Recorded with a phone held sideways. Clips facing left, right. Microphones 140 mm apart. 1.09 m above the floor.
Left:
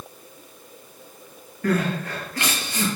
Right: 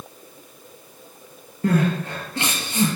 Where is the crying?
25° right (ahead or behind), 5.5 m.